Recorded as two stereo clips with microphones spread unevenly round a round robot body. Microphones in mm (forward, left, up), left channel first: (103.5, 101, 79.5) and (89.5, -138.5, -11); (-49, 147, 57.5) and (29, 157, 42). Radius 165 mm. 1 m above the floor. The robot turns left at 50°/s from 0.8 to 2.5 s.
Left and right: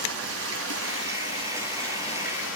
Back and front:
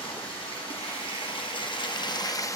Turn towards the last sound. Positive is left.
turn(degrees=140)